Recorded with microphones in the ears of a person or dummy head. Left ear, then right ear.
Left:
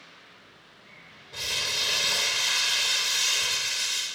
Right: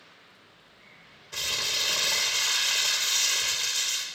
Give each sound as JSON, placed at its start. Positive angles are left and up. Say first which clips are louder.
{"t": 1.3, "sound": "crumpling", "louder": "even", "side_deg": -60, "distance_m": 0.7}